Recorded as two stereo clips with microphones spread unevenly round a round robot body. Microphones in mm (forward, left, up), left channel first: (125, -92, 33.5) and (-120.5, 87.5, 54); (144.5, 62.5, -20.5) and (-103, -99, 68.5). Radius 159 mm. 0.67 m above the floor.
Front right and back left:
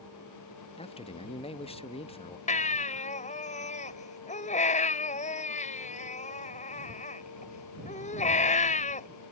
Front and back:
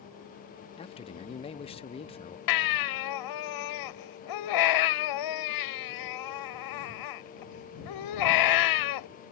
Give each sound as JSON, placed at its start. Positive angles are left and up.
{"t": 0.8, "sound": "a man speaking", "azimuth_deg": 15}
{"t": 2.5, "sound": "a baby crying", "azimuth_deg": 30}